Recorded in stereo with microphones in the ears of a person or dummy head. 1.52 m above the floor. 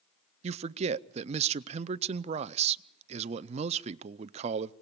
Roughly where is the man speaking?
Right.